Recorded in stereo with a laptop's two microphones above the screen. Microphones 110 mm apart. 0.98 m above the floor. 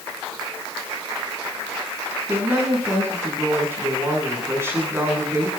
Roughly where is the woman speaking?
Right.